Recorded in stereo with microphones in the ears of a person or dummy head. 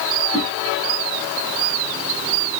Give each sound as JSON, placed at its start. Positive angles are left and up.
{"t": 0.3, "sound": "a whoosh", "side_deg": 5, "distance_m": 5.0}